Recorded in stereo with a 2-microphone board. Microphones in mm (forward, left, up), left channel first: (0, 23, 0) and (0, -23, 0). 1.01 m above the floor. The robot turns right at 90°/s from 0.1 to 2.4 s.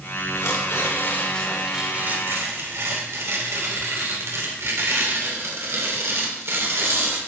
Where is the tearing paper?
65° left, 2.5 m; by 7.2 s 110° right, 2.5 m.